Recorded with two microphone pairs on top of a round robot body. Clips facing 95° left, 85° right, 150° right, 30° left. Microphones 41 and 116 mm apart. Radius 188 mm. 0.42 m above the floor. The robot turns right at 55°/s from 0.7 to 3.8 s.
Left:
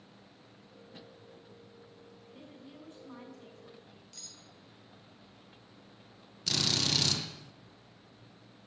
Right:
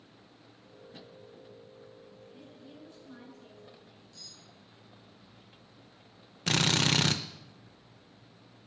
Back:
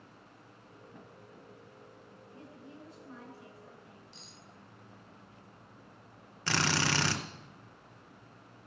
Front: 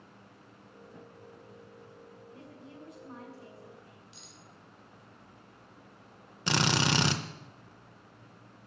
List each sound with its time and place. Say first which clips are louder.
2.3 s a woman speaking: left 3 dB, back 1 dB; 25° left, 6.5 m; by 4.0 s 110° left, 6.5 m
4.1 s cutlery clinking: right 1 dB, even; 110° left, 2 m
6.5 s a drill: right 5 dB, front 3 dB; 40° right, 0.7 m